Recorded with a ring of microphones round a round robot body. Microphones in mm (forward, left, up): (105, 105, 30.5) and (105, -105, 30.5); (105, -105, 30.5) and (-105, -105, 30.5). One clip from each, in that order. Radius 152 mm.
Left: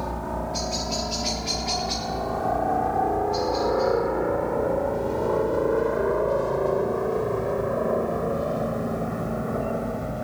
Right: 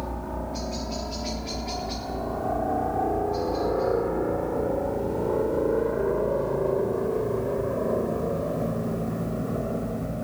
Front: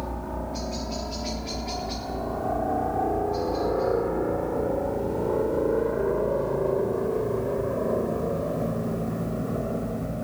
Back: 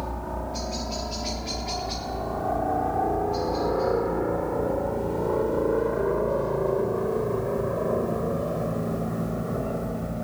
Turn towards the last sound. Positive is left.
turn(degrees=100)